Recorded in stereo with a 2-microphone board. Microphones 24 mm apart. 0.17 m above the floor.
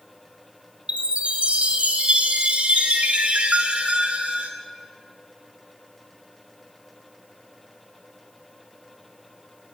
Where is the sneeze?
I don't hear a sneeze.